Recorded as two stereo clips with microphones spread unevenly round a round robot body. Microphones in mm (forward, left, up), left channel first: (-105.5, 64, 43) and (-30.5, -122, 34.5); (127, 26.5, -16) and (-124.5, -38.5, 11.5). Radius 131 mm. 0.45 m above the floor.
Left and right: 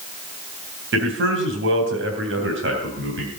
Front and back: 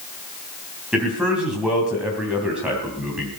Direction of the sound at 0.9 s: 80° right.